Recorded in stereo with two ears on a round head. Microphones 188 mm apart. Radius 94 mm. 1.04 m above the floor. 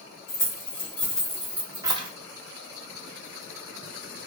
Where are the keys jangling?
15° left (ahead or behind), 1.9 m; by 2.1 s 30° right (ahead or behind), 0.8 m.